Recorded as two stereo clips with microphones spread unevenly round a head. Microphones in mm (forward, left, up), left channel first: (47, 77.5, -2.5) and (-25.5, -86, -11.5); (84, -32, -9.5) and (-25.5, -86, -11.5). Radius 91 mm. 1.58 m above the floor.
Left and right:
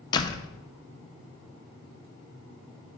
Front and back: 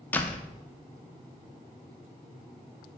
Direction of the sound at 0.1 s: 85° left.